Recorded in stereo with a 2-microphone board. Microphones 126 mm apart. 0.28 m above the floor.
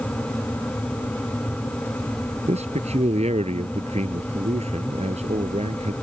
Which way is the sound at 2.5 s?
55° right (ahead or behind).